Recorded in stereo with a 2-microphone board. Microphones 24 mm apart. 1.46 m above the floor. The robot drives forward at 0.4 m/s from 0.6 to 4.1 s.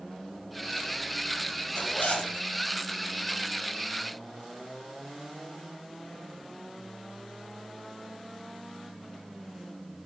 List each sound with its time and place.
1.8 s a zipper: 80° left, 1.4 m; by 2.3 s 85° left, 1.4 m